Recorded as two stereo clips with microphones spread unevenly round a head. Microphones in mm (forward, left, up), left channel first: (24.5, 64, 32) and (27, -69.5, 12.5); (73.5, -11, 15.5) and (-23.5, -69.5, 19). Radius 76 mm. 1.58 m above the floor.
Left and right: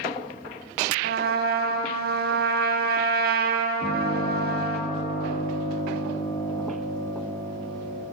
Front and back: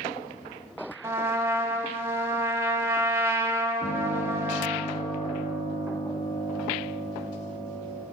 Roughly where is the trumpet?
Right.